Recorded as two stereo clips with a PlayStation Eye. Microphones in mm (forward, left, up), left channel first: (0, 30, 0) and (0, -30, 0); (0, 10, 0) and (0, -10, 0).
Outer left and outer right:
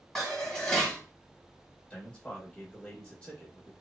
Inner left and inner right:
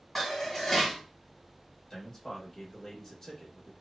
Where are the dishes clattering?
5° left (ahead or behind), 1.4 m.